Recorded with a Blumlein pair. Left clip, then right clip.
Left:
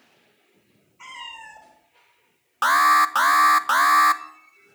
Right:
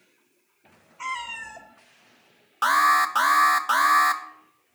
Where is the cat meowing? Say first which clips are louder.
Right 6 dB; 65° right, 1.9 m.